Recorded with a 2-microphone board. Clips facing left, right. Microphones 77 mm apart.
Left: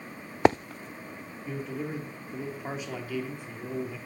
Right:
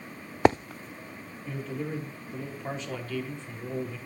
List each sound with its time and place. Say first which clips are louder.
1.4 s a man speaking: even; 10° left (ahead or behind), 3 m